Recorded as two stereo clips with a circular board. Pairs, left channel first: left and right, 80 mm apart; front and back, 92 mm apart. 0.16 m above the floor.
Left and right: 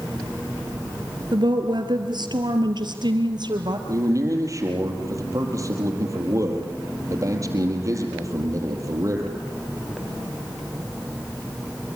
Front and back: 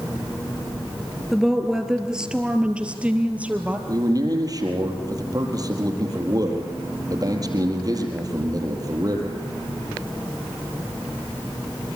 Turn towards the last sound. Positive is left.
turn(degrees=-135)